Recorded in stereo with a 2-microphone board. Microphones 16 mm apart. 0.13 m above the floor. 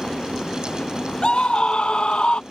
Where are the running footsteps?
I don't hear running footsteps.